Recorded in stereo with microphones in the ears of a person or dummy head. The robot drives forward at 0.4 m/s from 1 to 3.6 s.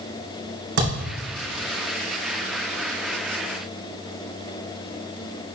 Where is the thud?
70° right (ahead or behind), 4 m.